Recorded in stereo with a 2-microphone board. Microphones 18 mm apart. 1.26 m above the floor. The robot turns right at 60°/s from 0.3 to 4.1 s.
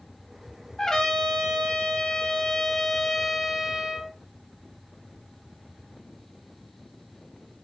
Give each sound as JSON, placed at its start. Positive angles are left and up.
{"t": 0.8, "sound": "a trumpet", "azimuth_deg": 35, "distance_m": 1.9}